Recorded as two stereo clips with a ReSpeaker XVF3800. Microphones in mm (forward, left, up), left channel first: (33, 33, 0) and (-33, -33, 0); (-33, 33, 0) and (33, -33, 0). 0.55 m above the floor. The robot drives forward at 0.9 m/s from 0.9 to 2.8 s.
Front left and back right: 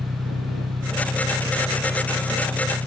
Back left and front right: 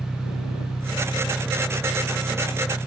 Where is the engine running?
160° right; by 2.9 s 165° right.